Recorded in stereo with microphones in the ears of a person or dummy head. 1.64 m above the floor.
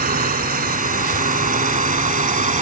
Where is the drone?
35° right (ahead or behind); by 2.6 s 30° right (ahead or behind).